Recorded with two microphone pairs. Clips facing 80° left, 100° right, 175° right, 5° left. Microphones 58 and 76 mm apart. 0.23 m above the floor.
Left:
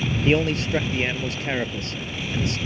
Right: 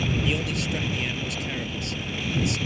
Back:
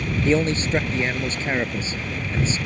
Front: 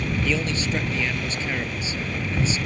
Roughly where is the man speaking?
Behind left.